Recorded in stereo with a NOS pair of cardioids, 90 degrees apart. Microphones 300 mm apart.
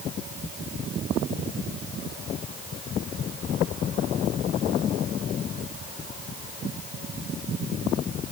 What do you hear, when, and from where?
Only background noise.